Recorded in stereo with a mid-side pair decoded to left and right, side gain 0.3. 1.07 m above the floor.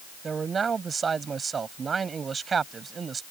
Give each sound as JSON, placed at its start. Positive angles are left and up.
{"t": 0.2, "sound": "a man speaking", "azimuth_deg": -60}